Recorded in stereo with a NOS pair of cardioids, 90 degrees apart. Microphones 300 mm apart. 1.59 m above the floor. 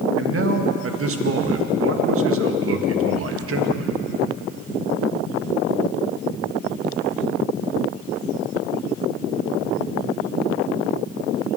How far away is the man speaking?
About 1.8 m.